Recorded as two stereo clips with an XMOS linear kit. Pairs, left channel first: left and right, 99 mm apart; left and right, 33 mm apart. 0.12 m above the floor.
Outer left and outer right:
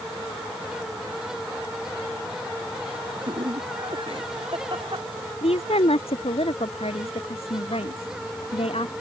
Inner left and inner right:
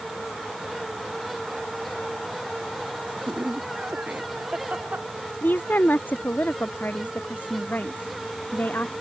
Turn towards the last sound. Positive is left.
turn(degrees=80)